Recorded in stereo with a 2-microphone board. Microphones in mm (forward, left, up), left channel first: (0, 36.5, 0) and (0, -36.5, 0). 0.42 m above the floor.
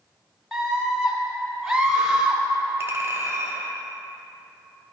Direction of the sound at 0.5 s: 5° right (ahead or behind).